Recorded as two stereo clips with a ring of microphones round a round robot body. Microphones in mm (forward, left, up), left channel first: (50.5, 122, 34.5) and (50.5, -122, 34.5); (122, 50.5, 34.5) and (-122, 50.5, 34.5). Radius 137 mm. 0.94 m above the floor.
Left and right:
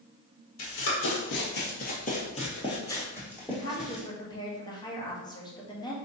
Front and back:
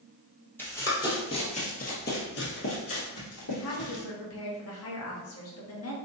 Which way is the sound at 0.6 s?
80° left.